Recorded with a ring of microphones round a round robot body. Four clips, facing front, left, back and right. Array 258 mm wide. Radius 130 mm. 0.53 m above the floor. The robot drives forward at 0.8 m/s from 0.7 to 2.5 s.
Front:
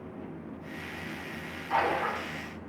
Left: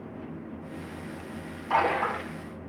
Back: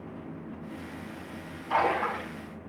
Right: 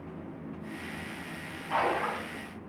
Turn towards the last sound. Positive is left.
turn(degrees=115)